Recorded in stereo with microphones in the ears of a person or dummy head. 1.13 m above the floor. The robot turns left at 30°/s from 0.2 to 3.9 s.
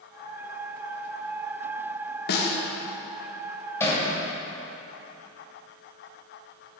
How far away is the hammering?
About 3 m.